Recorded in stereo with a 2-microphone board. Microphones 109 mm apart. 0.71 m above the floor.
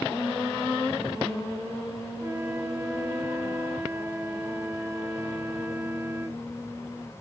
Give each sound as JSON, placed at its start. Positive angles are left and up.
{"t": 2.2, "sound": "a flute", "side_deg": -25, "distance_m": 0.8}